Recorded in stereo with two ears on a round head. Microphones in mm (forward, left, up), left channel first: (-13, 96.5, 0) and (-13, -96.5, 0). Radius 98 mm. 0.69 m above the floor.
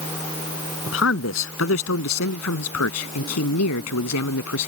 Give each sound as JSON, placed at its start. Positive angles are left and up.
{"t": 0.9, "sound": "a man speaking", "side_deg": 65}